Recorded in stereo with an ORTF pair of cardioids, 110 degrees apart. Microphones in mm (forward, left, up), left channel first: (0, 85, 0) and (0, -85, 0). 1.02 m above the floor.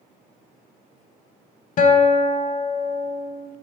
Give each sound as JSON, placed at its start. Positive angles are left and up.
{"t": 1.8, "sound": "a guitar", "azimuth_deg": 50, "distance_m": 0.7}